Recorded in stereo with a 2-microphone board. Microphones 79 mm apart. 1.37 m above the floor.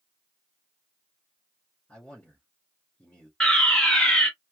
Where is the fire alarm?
10° left (ahead or behind), 1.9 m.